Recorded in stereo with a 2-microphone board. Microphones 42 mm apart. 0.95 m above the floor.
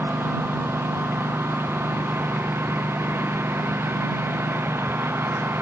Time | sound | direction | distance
0.0 | a lawn mower | 70° right (ahead or behind) | ?